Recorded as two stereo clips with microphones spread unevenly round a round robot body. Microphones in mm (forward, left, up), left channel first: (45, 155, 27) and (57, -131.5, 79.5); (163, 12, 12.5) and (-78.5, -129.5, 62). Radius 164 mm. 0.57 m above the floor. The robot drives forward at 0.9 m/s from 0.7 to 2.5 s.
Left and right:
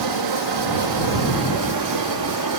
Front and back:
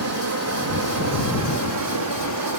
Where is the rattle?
I don't hear a rattle.